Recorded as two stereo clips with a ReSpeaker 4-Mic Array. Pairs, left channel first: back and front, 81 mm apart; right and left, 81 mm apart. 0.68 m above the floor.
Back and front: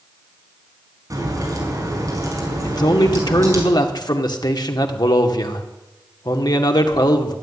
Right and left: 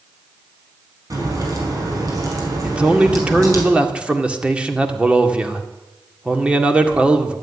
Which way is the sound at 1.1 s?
45° left.